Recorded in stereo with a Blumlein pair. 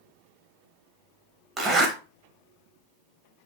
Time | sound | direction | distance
1.6 | a zipper | 15° right | 0.9 m